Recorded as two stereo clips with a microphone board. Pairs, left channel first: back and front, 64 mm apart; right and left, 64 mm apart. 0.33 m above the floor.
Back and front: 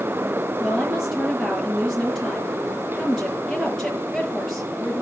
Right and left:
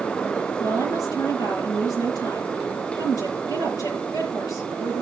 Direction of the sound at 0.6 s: 95° right.